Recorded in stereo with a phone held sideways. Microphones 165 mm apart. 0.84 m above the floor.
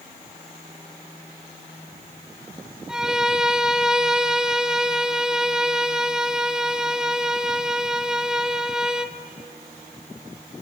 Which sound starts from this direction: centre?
A violin, at 2.9 s.